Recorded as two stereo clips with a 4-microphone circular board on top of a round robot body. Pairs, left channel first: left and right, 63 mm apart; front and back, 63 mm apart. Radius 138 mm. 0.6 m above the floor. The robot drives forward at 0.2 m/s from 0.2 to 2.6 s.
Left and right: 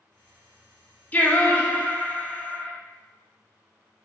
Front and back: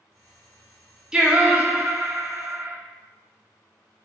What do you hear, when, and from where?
1.1 s singing: 115° left, 0.7 m; by 2.7 s 150° left, 0.8 m